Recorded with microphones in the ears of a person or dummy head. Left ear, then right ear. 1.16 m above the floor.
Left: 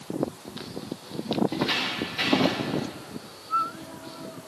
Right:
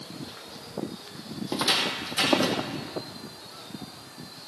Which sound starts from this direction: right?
Footsteps, at 1.5 s.